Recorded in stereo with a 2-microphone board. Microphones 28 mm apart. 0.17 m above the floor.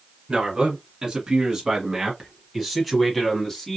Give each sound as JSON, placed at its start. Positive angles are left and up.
{"t": 0.3, "sound": "a man speaking", "side_deg": -25, "distance_m": 1.6}